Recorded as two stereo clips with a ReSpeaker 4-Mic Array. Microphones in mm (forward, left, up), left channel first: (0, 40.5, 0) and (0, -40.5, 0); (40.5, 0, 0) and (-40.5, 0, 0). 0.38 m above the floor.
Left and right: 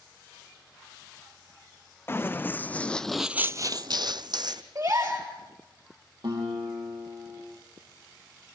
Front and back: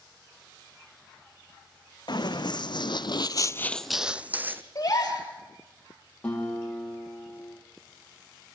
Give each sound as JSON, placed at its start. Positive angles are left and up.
{"t": 2.1, "sound": "running footsteps", "azimuth_deg": 30, "distance_m": 1.6}
{"t": 4.8, "sound": "a gasp", "azimuth_deg": -50, "distance_m": 4.0}
{"t": 6.2, "sound": "a guitar", "azimuth_deg": -75, "distance_m": 8.5}